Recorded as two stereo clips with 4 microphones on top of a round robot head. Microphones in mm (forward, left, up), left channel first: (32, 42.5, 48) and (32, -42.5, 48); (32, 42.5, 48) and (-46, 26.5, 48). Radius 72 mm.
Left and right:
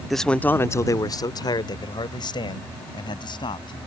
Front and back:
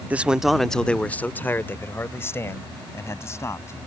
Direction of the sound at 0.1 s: Straight behind.